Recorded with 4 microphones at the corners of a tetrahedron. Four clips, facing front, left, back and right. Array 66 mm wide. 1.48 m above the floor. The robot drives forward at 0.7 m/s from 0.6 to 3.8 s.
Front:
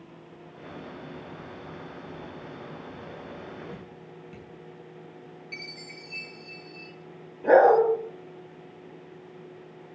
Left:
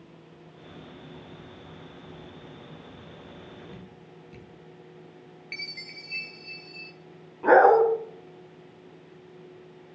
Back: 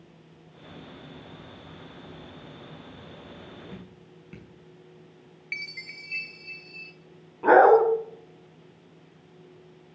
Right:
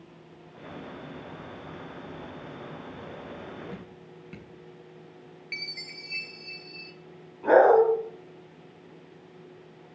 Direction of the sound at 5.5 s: 175° right.